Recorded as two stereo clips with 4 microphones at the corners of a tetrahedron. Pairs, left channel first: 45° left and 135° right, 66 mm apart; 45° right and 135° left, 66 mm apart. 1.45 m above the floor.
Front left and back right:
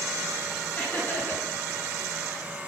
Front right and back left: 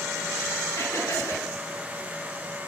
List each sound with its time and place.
0.8 s laughter: 15° right, 4 m